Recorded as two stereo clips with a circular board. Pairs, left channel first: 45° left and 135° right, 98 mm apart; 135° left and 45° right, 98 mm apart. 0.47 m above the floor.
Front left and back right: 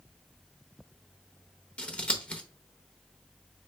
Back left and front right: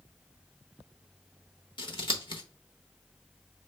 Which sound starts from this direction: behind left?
Scissors, at 1.8 s.